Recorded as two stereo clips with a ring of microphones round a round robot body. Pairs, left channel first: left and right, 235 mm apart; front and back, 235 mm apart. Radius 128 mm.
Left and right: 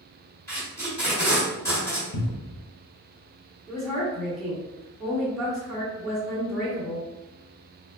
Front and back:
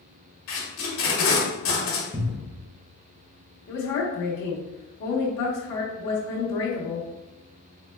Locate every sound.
0.5 s tape being pulled: 10° left, 1.6 m
2.1 s a cupboard door: 105° left, 0.6 m
3.7 s a woman speaking: straight ahead, 1.2 m